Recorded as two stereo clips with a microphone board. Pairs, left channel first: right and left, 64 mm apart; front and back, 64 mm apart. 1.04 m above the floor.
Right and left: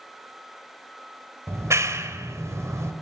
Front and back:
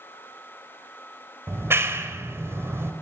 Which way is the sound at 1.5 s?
130° left.